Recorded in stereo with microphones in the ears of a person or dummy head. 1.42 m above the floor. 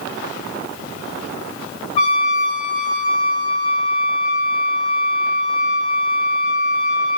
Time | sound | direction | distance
2.0 | a trumpet | 40° left (ahead or behind) | 2.5 m